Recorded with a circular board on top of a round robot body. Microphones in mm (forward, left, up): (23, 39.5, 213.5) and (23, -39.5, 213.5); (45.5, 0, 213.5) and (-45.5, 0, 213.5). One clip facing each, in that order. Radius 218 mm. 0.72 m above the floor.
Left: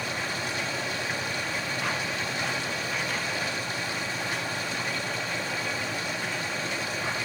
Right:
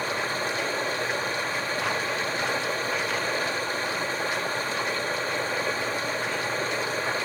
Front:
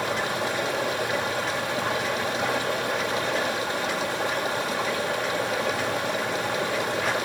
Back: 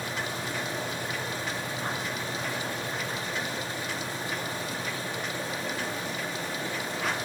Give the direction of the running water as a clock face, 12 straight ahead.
1 o'clock.